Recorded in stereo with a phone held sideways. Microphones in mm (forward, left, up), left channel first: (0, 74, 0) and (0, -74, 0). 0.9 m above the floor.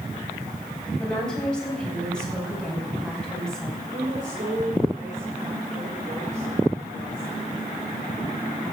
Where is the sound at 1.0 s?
5° left (ahead or behind), 5 m.